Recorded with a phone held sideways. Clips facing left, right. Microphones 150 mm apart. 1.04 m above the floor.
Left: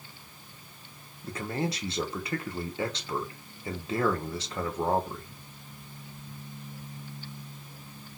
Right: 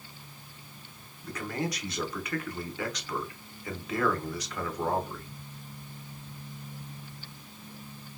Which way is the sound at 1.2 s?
25° left (ahead or behind).